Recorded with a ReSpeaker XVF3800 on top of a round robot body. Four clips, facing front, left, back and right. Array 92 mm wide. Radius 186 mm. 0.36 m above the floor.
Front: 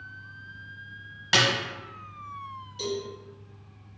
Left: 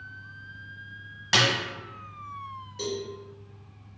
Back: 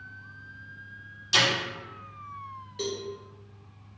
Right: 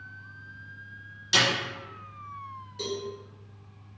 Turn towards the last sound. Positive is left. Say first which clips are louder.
# left 2 dB, front 2 dB
turn(degrees=170)